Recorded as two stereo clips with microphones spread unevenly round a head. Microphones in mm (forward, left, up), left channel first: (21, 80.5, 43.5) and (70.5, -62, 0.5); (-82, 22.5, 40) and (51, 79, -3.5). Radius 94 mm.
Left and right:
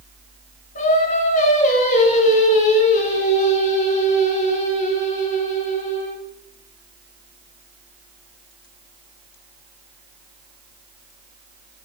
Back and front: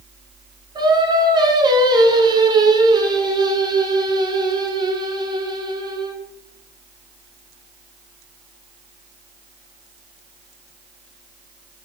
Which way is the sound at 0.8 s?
90° left.